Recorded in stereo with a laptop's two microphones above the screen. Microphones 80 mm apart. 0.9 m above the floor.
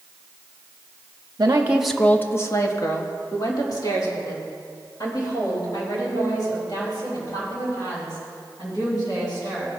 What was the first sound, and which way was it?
A woman speaking, 40° right (ahead or behind).